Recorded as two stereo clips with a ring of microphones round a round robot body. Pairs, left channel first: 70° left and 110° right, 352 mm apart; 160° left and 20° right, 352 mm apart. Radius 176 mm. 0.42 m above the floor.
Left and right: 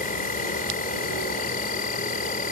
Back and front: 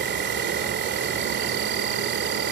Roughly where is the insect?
Ahead.